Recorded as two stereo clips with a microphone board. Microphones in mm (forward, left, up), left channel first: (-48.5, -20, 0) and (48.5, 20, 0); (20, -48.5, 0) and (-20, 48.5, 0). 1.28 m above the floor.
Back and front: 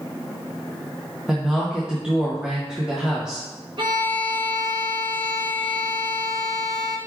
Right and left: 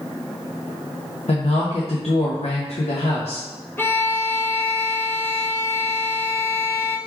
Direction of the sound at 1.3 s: 60° right.